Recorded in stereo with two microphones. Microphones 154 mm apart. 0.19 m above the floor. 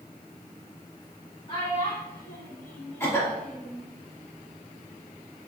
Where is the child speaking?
35° left (ahead or behind), 0.7 m; by 3.8 s centre (ahead or behind), 1.4 m.